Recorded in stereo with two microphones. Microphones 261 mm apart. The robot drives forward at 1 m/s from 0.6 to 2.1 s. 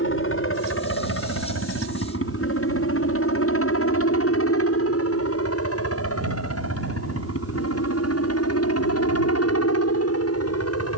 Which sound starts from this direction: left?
A helicopter, at 0.0 s.